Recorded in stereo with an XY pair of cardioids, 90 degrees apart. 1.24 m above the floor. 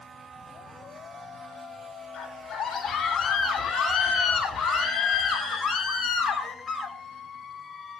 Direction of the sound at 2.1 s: 50° left.